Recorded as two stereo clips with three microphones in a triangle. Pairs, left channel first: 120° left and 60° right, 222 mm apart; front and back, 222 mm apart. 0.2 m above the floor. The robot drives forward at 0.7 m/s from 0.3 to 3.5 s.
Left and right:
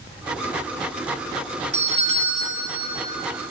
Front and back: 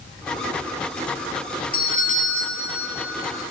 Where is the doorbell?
15° right, 2.5 m; by 3.0 s 30° right, 1.8 m.